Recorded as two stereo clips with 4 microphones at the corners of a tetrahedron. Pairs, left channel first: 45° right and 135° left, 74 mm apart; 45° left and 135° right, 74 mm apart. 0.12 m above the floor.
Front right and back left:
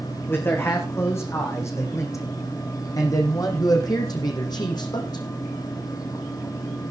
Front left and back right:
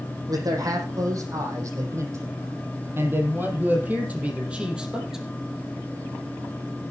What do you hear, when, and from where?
0.3 s a man speaking: 105° right, 5 m; by 5.2 s 50° right, 3.5 m